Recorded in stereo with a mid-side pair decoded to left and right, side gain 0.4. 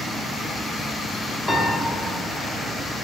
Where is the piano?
30° left, 0.9 m.